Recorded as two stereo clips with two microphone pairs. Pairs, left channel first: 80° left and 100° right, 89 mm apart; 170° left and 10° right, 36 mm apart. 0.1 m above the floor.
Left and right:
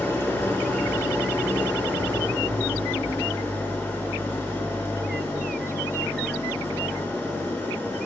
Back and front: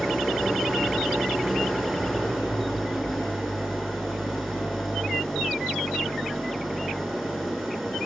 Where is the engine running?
80° left, 1.0 m.